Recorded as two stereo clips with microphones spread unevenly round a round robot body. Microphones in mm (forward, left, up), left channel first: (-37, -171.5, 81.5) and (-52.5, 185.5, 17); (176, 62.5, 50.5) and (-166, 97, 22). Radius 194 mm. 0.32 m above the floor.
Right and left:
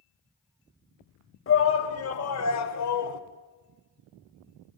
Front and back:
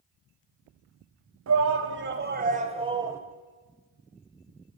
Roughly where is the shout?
Behind right.